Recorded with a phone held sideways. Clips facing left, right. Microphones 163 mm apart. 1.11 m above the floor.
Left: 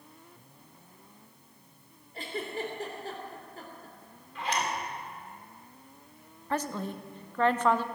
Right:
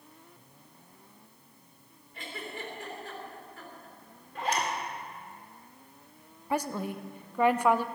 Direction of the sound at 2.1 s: 35° left (ahead or behind).